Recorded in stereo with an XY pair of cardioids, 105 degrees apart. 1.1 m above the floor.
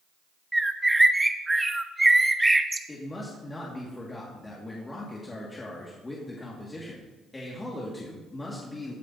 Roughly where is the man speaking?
Ahead.